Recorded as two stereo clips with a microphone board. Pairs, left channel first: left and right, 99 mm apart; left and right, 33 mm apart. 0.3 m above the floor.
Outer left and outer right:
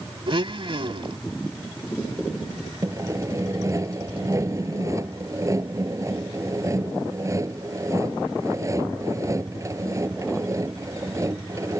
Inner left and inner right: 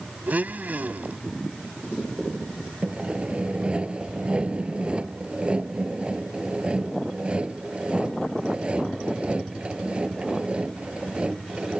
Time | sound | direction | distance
0.3 | a blender | 55° right (ahead or behind) | ?
2.8 | sawing | 30° right (ahead or behind) | ?